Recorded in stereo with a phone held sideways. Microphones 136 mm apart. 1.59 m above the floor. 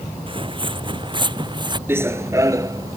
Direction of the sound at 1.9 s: 15° right (ahead or behind).